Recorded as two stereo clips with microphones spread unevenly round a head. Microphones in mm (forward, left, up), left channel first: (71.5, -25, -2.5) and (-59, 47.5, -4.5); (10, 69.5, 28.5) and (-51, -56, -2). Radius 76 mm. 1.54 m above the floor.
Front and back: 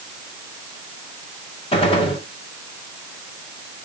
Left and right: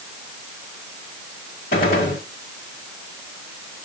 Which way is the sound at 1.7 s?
25° left.